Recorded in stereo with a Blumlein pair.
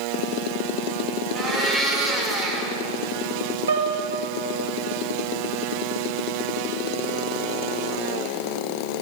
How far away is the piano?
About 1.4 m.